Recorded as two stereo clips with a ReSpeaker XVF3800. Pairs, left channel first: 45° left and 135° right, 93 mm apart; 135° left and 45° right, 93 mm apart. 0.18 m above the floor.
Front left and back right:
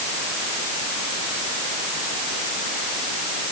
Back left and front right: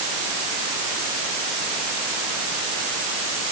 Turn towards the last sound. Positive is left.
No sound to turn to.